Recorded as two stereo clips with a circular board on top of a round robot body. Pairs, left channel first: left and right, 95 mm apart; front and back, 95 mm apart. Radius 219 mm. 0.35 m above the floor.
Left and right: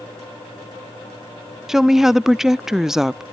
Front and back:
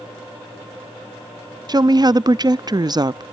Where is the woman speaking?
175° right.